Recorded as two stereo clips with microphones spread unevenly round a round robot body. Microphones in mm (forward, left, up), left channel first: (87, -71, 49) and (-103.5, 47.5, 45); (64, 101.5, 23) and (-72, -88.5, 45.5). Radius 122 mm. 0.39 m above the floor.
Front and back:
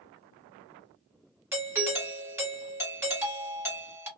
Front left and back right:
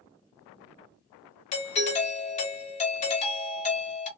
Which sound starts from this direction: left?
A doorbell, at 1.5 s.